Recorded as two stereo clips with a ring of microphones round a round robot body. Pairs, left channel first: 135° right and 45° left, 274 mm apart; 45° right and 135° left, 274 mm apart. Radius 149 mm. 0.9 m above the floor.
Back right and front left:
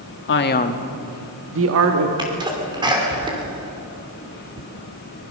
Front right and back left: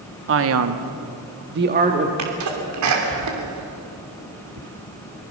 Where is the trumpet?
I don't hear a trumpet.